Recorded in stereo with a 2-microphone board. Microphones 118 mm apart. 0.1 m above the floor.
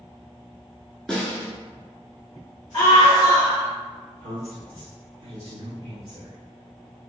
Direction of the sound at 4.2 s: 25° right (ahead or behind).